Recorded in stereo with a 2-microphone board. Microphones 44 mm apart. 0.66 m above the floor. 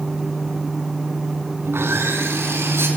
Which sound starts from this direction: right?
Sawing, at 1.6 s.